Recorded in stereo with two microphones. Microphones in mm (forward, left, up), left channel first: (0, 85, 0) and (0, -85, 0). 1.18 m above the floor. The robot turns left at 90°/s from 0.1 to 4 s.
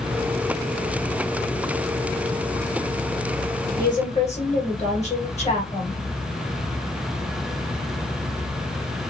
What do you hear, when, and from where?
3.8 s a woman speaking: 60° left (ahead or behind), 1.5 m; by 6.0 s 40° left (ahead or behind), 1.5 m